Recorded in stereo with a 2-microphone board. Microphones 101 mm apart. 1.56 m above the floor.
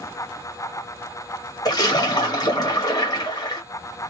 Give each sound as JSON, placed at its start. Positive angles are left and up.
{"t": 1.6, "sound": "a splash", "side_deg": 40, "distance_m": 1.5}